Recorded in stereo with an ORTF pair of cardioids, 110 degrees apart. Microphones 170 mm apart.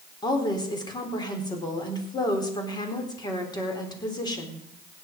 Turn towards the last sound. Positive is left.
turn(degrees=25)